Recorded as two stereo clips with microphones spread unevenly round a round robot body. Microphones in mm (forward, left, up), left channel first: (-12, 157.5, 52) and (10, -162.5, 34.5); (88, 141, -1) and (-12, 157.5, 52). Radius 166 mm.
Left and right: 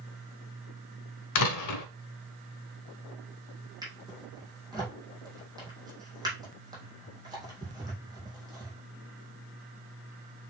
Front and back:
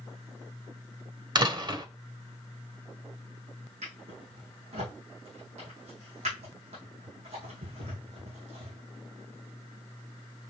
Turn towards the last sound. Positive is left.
turn(degrees=-165)